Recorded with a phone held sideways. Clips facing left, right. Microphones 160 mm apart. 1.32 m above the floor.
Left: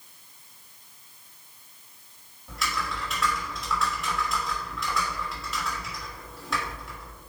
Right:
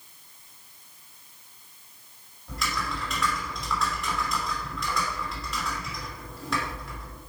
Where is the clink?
No clink in this recording.